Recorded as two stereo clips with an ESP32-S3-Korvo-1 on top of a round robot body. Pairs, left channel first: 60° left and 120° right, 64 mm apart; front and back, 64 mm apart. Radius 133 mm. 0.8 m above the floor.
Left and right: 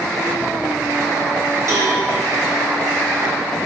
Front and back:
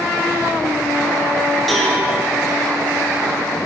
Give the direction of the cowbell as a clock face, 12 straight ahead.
3 o'clock.